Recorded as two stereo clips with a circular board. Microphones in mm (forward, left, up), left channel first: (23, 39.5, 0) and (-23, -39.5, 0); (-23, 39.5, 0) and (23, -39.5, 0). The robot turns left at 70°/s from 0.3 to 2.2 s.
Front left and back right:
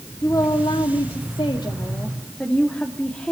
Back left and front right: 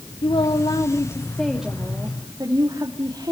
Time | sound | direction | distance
0.2 | a woman speaking | 115° left | 2 m